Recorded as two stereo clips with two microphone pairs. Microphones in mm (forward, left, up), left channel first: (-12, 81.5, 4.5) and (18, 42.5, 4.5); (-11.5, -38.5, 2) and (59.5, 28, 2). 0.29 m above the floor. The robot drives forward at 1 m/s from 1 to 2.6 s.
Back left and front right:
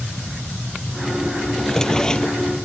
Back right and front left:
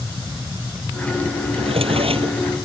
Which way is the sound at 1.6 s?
50° left.